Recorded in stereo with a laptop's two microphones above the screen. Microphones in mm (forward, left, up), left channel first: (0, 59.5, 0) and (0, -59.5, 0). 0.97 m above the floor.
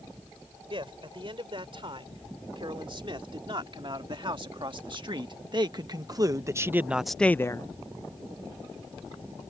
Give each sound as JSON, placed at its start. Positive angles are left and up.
{"t": 0.7, "sound": "a man speaking", "side_deg": -45}